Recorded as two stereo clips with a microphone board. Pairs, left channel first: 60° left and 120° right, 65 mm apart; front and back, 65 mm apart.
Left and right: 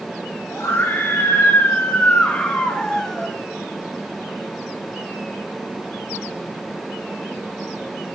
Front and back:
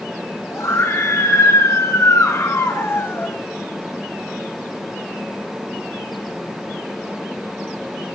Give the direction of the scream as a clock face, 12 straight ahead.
11 o'clock.